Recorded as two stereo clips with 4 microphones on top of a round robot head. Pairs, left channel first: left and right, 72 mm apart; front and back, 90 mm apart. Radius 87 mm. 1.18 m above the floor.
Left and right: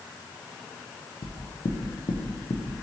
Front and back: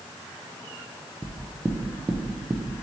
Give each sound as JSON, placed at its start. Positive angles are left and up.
{"t": 1.2, "sound": "knocking", "azimuth_deg": 100, "distance_m": 0.5}